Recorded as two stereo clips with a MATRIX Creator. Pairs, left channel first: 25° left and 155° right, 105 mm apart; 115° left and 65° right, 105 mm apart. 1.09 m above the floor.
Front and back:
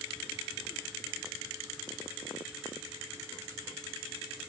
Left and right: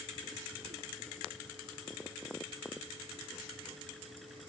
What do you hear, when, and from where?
Only background noise.